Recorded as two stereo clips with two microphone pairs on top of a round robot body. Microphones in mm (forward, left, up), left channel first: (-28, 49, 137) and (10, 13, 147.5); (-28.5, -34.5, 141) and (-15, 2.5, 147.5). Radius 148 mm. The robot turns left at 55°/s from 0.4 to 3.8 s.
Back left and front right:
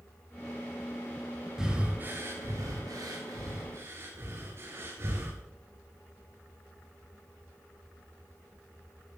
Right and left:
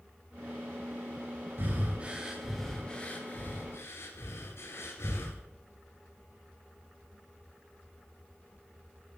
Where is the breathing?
35° left, 1.7 m; by 5.4 s 90° right, 1.7 m.